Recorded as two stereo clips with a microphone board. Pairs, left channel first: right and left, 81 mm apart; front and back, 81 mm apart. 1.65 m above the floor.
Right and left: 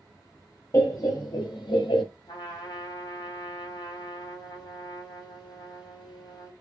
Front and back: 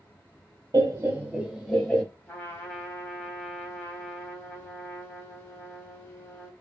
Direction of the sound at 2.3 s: 65° right.